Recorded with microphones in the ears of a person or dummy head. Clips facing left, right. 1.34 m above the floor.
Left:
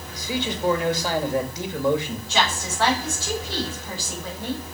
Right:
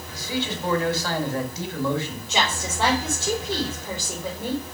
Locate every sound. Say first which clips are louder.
0.1 s a man speaking: left 1 dB; 15° left (ahead or behind), 2.0 m
2.3 s a woman speaking: left 1 dB; 20° right (ahead or behind), 4.5 m